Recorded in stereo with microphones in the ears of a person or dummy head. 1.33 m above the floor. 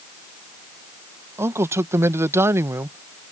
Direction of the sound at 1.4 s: 15° right (ahead or behind).